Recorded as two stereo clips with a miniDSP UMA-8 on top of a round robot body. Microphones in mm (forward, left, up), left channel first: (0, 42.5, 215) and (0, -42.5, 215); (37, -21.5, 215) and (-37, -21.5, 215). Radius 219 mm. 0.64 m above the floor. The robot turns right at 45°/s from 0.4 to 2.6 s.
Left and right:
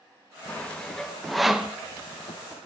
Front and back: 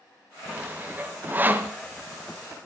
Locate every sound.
0.5 s sawing: 140° left, 1.2 m; by 1.7 s 160° right, 1.2 m